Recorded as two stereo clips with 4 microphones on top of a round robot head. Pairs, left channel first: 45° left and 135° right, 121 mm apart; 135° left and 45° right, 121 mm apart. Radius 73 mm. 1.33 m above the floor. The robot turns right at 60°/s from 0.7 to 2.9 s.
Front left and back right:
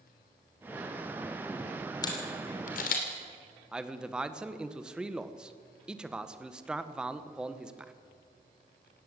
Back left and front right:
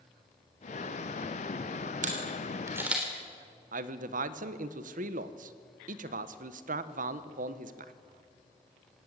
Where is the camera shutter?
15° right, 3.5 m; by 3.0 s 35° left, 3.5 m.